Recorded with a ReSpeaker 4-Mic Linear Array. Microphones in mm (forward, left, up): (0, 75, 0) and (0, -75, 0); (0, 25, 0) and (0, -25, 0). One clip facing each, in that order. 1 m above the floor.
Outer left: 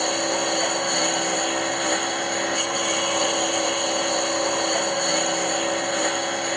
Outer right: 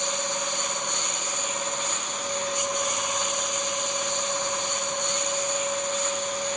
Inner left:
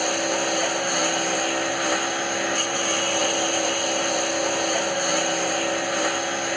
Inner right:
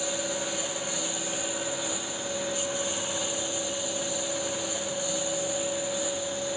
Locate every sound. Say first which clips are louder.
0.0 s a lawn mower: outer left 7 dB, inner left 8 dB; 65° left (ahead or behind)